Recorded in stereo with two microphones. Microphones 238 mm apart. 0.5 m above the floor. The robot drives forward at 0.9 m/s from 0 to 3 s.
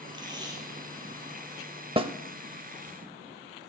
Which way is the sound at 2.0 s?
25° right (ahead or behind).